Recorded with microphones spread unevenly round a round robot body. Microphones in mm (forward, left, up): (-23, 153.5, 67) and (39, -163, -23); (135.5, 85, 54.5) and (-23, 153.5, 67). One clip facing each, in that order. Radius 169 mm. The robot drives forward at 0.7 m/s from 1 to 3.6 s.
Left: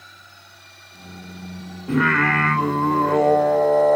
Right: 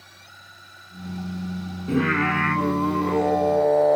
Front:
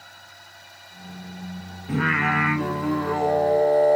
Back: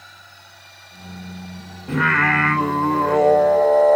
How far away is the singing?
About 1.9 m.